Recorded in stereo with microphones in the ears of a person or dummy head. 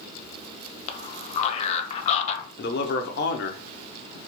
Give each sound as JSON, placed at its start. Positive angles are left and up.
{"t": 0.9, "sound": "a man speaking", "side_deg": 35, "distance_m": 0.6}
{"t": 2.6, "sound": "a man speaking", "side_deg": 55, "distance_m": 0.5}